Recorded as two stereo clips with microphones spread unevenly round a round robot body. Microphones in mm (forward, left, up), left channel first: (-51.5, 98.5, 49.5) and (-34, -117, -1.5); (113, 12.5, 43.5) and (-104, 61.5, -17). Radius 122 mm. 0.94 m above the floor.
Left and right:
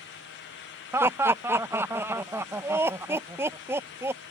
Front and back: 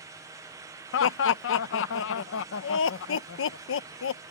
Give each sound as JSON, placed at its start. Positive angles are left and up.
{"t": 0.9, "sound": "laughter", "azimuth_deg": -30}